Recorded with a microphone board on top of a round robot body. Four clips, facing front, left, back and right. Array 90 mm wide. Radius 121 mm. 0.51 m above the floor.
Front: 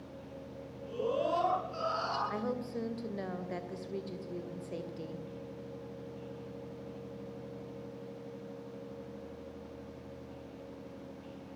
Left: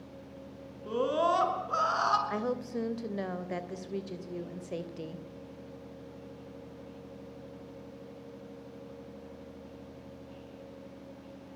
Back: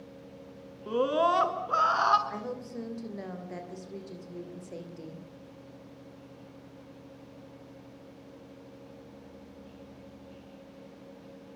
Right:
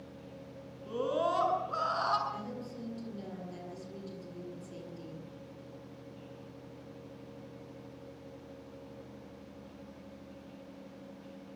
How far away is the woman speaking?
About 3 m.